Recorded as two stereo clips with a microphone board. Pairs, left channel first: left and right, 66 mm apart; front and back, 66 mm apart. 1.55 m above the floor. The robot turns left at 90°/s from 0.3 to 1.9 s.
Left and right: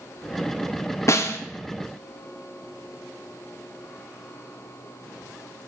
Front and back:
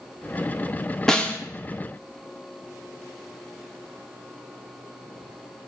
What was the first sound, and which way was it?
A snare drum, 80° left.